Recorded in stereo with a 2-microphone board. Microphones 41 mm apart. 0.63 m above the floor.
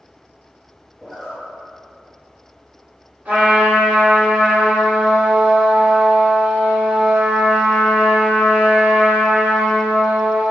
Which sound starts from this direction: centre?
A zipper, at 1.0 s.